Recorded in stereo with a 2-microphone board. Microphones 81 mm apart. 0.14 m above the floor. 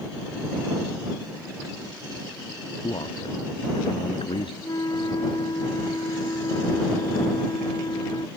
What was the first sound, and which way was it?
A man speaking, 80° left.